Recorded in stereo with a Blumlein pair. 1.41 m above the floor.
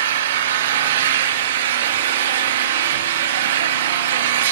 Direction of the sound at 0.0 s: 60° right.